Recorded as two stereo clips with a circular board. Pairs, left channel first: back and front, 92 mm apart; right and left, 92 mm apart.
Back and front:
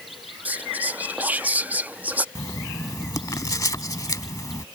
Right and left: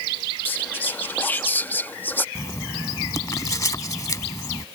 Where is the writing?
135° right.